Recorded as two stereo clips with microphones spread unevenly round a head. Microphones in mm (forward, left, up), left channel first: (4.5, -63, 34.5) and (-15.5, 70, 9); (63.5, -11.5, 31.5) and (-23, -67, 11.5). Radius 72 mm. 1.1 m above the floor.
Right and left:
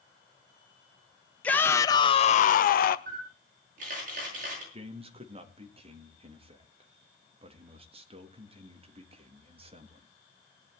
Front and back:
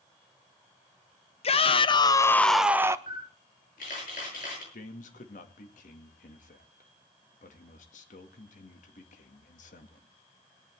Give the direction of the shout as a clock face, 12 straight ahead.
12 o'clock.